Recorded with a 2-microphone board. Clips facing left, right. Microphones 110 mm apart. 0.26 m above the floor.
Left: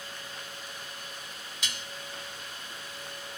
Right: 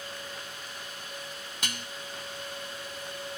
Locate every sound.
1.6 s dishes clattering: 55° right (ahead or behind), 1.2 m